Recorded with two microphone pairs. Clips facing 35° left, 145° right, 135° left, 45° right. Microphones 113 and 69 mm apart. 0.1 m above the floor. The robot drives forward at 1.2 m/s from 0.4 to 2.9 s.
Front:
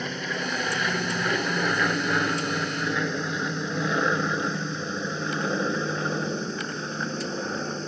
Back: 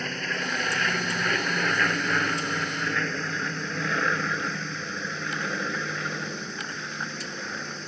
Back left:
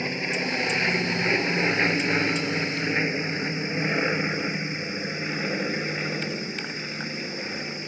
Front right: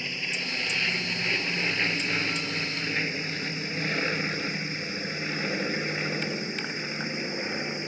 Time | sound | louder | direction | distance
0.0 | an aircraft | front 1 dB, back left 6 dB | 110° left | ?